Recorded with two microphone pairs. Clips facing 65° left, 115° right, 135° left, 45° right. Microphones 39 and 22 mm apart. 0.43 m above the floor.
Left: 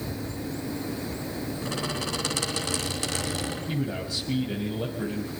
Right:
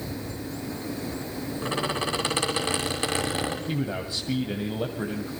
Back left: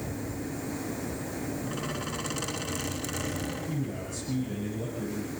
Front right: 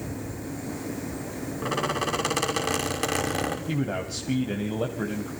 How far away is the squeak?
About 6.5 m.